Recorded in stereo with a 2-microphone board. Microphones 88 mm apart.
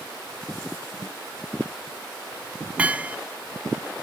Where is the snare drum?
45° left (ahead or behind).